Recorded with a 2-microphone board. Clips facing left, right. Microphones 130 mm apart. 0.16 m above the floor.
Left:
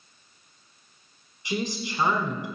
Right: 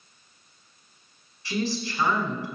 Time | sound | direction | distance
1.4 | a woman speaking | 20° left (ahead or behind) | 1.4 m